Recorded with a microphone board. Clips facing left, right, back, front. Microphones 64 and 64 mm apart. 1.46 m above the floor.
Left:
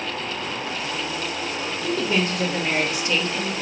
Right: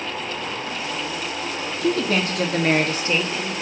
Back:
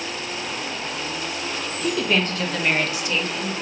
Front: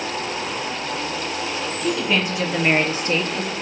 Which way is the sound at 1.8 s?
90° right.